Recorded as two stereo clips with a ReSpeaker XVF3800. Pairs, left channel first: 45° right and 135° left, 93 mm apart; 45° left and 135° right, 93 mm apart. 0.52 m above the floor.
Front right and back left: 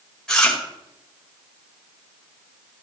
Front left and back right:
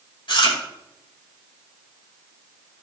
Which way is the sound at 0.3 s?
35° left.